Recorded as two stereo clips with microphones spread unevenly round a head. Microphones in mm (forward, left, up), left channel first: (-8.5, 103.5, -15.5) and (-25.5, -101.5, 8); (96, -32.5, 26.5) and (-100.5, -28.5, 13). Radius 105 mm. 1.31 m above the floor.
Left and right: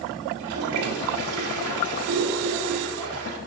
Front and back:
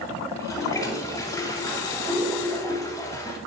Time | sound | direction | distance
0.3 | a toilet flushing | 75° right | 3 m